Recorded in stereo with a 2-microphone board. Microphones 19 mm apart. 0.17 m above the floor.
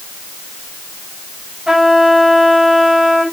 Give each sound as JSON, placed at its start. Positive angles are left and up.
{"t": 1.7, "sound": "a trumpet", "side_deg": -30, "distance_m": 5.5}